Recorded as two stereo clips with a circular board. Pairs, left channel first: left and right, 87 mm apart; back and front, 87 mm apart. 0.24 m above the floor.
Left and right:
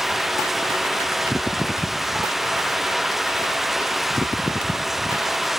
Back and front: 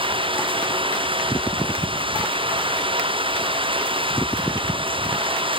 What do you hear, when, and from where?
0.0 s running water: 5° right